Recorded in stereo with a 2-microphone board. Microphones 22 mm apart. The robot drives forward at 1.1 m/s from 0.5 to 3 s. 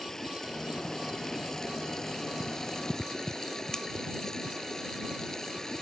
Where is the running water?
20° left (ahead or behind); by 5.8 s 25° left (ahead or behind).